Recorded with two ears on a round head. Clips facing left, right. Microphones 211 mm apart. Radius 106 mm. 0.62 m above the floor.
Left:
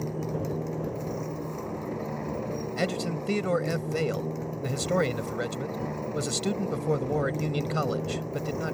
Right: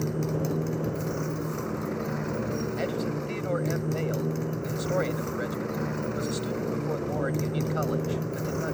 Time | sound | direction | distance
0.0 | a motorcycle | 20° right (ahead or behind) | ?
2.8 | a man speaking | 60° left (ahead or behind) | ?